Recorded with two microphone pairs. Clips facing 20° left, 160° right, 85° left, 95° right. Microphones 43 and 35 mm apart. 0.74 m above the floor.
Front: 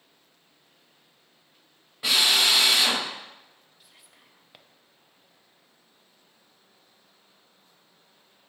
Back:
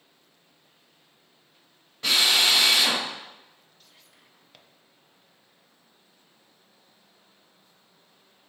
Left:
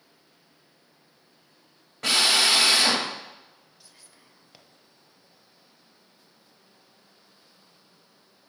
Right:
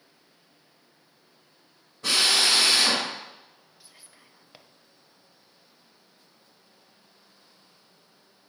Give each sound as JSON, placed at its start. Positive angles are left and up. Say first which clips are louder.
{"t": 2.0, "sound": "a drill", "louder": "even, left 1 dB", "azimuth_deg": 100, "distance_m": 2.5}
{"t": 3.8, "sound": "whispering", "louder": "front 2 dB, right 2 dB", "azimuth_deg": -45, "distance_m": 0.6}